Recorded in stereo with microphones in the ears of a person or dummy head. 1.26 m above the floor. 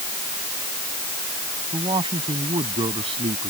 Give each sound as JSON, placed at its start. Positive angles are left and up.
{"t": 1.7, "sound": "a man speaking", "side_deg": -25}